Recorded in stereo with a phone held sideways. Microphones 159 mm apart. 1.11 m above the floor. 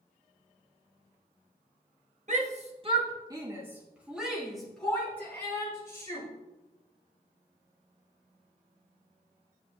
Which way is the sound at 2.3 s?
50° right (ahead or behind).